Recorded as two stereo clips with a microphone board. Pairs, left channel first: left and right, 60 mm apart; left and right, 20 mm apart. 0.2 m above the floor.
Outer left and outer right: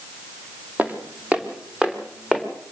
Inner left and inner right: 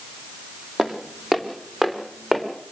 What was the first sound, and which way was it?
Footsteps, 25° right (ahead or behind).